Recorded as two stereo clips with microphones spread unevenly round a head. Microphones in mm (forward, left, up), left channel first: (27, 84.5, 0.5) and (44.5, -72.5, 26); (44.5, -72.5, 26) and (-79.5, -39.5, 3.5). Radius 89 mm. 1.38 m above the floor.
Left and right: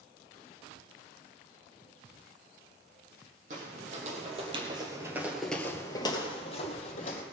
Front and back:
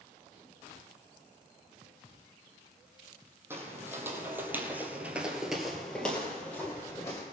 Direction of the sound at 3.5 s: 120° right.